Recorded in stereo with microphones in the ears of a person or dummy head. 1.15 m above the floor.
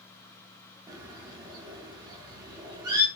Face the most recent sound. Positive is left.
turn(degrees=-20)  # may be behind; listen again after turning